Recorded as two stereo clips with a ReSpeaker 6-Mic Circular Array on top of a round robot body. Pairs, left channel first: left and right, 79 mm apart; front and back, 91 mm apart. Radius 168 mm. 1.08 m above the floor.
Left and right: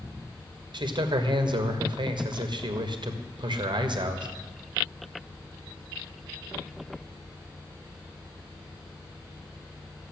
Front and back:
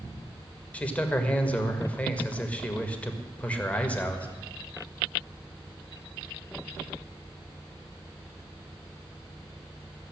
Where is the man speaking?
75° right, 1.9 m.